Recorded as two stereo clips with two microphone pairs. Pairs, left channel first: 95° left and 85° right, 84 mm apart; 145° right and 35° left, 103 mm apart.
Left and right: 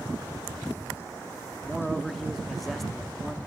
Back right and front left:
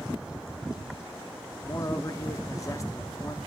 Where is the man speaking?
175° right, 0.7 m.